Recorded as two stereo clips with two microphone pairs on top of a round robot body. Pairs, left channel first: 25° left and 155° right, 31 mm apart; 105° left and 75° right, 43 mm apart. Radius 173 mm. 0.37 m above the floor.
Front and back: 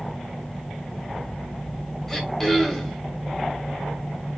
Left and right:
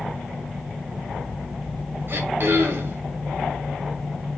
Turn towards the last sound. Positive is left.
turn(degrees=-55)